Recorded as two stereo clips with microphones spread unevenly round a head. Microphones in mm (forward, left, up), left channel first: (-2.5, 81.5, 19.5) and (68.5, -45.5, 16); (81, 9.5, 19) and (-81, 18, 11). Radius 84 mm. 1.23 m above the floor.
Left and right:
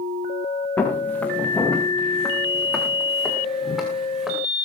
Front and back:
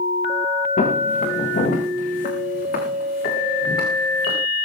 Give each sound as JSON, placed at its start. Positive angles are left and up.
{"t": 0.8, "sound": "footsteps", "azimuth_deg": 40, "distance_m": 6.5}